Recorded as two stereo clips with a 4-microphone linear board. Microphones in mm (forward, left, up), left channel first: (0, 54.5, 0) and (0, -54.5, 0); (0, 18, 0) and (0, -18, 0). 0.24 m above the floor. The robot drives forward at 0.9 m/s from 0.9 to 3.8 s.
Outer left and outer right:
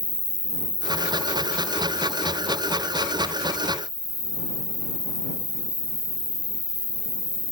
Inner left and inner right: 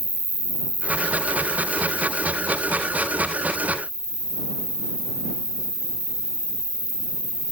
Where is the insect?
50° right (ahead or behind), 0.7 m; by 7.5 s 15° right (ahead or behind), 2.5 m.